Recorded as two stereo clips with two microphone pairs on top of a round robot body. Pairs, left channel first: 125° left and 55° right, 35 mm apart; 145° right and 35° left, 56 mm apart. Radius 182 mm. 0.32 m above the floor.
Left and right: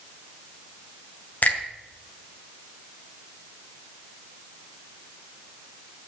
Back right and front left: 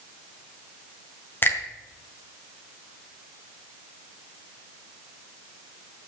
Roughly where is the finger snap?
Behind.